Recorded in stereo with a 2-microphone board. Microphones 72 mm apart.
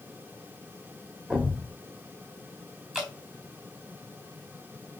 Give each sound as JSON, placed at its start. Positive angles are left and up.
{"t": 1.3, "sound": "a thud", "side_deg": -10, "distance_m": 2.5}
{"t": 2.9, "sound": "dripping", "side_deg": -10, "distance_m": 4.0}